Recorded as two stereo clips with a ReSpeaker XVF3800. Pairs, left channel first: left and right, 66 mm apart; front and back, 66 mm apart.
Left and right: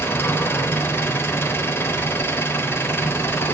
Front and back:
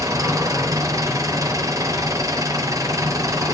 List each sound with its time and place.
0.0 s an engine running: 145° left, 3.5 m